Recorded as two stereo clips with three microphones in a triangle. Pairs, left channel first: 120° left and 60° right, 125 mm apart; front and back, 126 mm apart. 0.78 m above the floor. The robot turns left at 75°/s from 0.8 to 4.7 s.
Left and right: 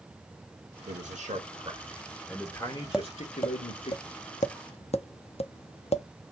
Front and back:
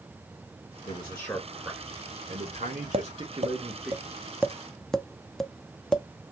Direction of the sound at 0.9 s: 40° right.